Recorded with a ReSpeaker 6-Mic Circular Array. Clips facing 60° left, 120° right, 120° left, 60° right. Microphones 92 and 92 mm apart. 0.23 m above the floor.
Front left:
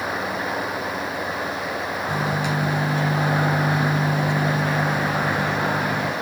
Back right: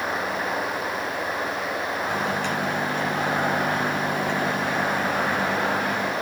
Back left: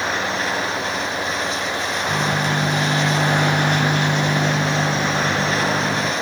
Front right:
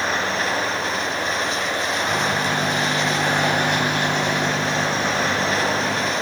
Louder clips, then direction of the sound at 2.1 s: Front left 3 dB, back left 3 dB; 140° left.